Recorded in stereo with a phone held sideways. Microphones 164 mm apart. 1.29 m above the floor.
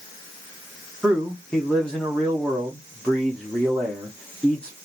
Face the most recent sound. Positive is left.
turn(degrees=10)  # may be behind; listen again after turning